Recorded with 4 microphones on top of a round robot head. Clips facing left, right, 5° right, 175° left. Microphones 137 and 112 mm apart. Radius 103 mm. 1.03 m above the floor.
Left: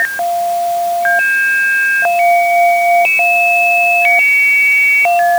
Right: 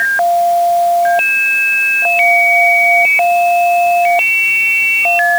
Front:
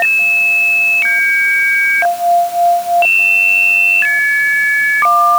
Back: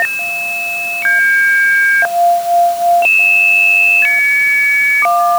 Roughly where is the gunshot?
No gunshot in this recording.